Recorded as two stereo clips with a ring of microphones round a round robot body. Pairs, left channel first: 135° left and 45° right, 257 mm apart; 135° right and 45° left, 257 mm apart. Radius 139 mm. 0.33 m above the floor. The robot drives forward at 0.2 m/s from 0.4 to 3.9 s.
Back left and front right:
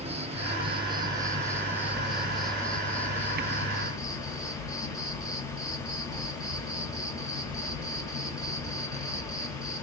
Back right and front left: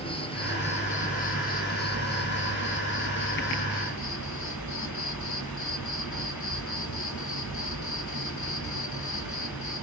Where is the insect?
85° right, 0.7 m; by 9.8 s 150° right, 1.0 m.